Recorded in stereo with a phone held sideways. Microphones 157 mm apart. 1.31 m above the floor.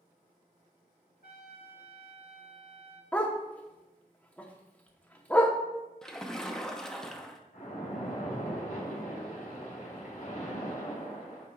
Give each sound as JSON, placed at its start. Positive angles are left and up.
{"t": 1.2, "sound": "a trumpet", "side_deg": 75, "distance_m": 1.7}
{"t": 3.1, "sound": "a dog barking", "side_deg": 10, "distance_m": 0.8}
{"t": 6.0, "sound": "a splash", "side_deg": 5, "distance_m": 0.7}
{"t": 7.5, "sound": "a splash", "side_deg": 60, "distance_m": 3.5}